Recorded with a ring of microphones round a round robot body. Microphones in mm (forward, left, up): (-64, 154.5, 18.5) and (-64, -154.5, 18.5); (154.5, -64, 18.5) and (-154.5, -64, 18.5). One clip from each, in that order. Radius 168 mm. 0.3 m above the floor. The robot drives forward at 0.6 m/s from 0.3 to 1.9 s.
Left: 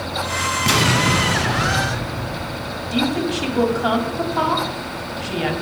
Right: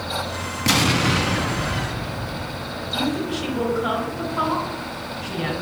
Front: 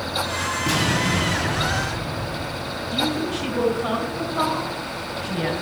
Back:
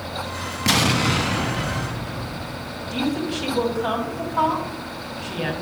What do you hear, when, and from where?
0.7 s an explosion: 175° right, 1.1 m
2.9 s a woman speaking: 140° left, 1.8 m